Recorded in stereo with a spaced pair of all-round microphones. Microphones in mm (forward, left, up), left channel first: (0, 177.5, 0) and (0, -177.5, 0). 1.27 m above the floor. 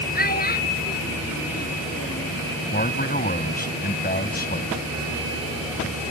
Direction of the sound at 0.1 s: 30° left (ahead or behind).